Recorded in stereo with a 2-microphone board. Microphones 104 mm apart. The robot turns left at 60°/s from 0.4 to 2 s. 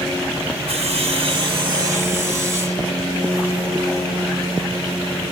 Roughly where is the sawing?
Right.